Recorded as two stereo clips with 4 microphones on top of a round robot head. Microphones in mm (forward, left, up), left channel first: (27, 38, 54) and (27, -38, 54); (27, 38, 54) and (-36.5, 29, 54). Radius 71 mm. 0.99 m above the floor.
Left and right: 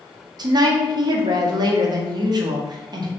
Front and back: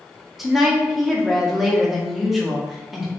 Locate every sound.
0.4 s a woman speaking: 85° right, 0.5 m